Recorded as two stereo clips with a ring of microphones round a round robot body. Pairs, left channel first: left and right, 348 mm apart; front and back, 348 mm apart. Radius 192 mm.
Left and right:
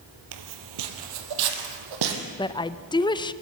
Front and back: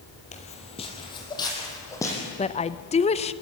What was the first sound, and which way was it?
Footsteps, 70° right.